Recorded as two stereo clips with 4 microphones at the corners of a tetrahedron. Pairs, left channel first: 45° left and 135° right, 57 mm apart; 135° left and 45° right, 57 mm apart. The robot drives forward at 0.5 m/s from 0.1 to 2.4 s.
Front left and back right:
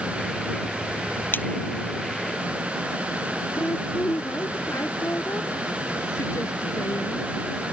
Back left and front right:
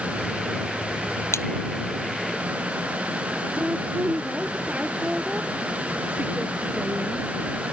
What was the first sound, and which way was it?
A splash, 100° left.